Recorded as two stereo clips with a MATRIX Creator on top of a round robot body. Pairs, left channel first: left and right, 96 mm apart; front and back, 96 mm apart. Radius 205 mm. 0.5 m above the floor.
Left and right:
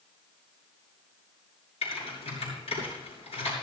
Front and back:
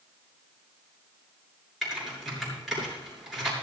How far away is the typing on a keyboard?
About 7 m.